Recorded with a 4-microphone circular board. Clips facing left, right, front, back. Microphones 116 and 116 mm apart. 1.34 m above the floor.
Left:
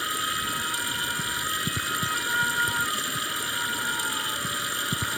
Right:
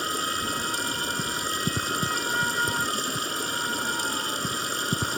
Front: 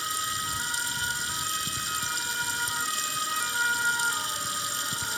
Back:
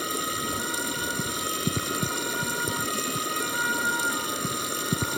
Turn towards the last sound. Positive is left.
turn(degrees=-150)